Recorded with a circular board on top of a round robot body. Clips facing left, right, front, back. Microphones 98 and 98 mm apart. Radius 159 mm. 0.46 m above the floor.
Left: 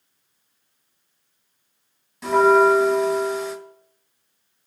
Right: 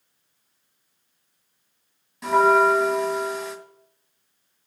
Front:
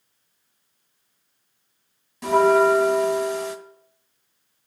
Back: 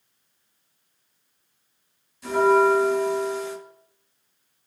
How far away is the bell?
About 1.3 m.